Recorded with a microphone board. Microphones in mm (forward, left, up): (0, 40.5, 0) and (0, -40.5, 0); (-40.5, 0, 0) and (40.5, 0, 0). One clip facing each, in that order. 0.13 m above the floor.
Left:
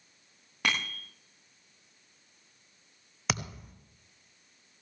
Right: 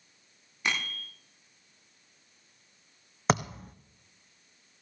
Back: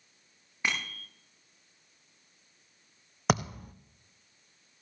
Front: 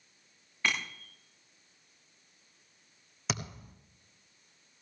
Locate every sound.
0.6 s a bicycle bell: 105° left, 9.5 m
3.3 s a thud: 145° right, 1.4 m